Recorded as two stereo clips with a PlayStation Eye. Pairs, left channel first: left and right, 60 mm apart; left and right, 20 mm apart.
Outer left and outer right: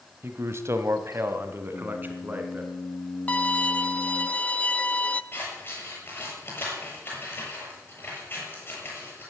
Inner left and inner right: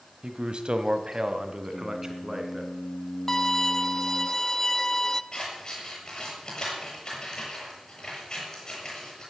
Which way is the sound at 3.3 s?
20° left (ahead or behind).